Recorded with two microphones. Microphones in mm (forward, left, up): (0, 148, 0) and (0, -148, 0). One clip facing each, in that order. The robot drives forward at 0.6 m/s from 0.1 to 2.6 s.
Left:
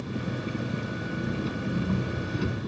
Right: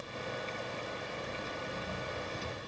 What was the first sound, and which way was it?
An engine running, 85° left.